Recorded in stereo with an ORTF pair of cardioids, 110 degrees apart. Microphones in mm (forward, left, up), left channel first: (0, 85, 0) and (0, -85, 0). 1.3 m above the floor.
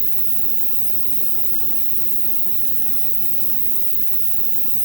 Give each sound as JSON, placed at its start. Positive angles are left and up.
{"t": 0.0, "sound": "an insect", "azimuth_deg": -35, "distance_m": 0.7}